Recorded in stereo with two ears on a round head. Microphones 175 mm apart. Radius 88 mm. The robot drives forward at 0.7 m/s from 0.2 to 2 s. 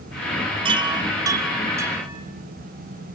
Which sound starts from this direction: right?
A chime, at 0.7 s.